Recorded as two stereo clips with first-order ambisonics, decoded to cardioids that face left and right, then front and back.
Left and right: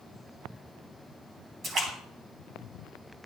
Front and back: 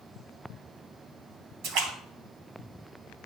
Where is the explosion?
I don't hear an explosion.